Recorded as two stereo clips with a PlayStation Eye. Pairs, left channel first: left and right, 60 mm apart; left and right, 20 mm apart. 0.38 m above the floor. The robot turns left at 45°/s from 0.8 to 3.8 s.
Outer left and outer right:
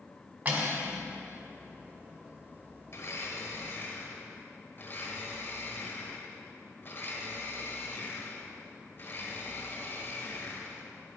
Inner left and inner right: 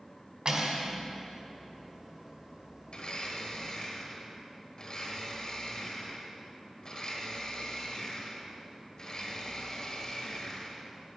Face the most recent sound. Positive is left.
turn(degrees=50)